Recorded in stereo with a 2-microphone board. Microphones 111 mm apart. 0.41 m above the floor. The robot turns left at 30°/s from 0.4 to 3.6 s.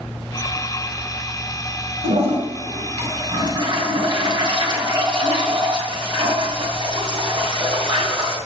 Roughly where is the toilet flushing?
Right.